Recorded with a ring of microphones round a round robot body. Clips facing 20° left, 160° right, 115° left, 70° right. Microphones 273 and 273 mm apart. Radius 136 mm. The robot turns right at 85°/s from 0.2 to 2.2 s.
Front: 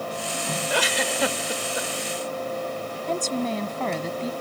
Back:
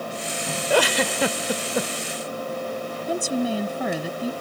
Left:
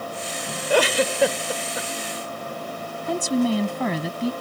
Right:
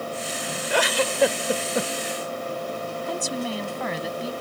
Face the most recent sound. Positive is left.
turn(degrees=120)